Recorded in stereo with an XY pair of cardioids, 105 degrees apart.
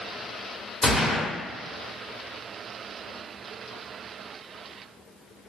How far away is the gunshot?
About 1.1 m.